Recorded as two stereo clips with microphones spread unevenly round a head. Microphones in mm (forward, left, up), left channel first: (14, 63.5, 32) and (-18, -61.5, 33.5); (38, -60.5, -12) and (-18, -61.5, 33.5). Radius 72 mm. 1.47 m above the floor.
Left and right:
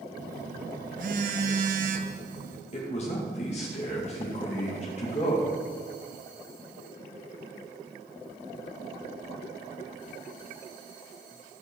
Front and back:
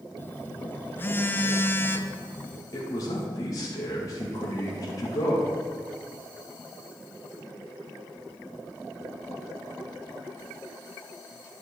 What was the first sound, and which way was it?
A phone buzzing, 80° right.